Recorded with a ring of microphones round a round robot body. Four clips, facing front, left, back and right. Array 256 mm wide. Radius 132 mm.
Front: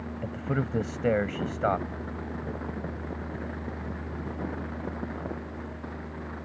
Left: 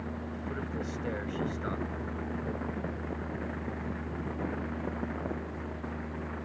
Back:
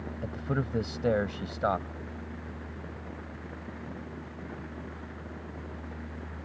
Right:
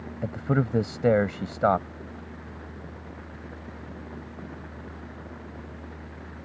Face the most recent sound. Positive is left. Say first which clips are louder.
# right 10 dB, front 2 dB
turn(degrees=-80)